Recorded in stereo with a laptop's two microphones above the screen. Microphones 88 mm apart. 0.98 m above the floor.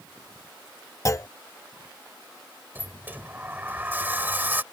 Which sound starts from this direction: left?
A clunk, at 1.1 s.